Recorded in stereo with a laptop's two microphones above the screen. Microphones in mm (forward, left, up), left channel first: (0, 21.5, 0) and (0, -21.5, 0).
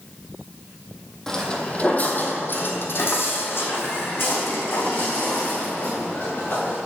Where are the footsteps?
15° left (ahead or behind), 1.5 m; by 6.8 s 55° left (ahead or behind), 5 m.